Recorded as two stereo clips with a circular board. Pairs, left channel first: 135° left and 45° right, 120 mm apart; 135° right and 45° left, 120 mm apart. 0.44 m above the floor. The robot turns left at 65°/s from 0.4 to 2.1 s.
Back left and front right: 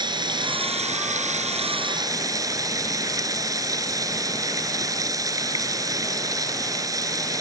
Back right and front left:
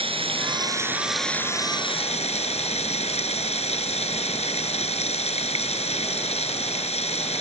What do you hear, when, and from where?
0.0 s running water: 5° left; by 7.4 s 105° right